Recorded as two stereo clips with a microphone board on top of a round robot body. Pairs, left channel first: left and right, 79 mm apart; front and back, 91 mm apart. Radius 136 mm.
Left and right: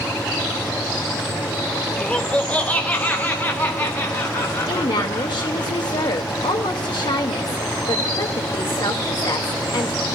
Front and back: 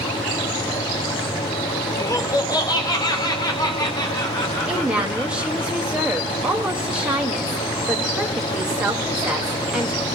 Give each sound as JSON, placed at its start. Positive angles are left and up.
{"t": 2.0, "sound": "laughter", "azimuth_deg": 20, "distance_m": 1.7}
{"t": 4.7, "sound": "a woman speaking", "azimuth_deg": 100, "distance_m": 2.5}